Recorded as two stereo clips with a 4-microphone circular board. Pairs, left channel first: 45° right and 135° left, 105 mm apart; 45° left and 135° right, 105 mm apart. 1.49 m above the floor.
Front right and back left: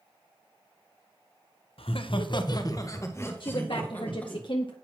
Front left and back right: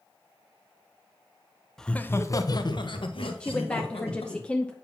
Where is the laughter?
40° right, 0.8 m; by 4.4 s 30° left, 2 m.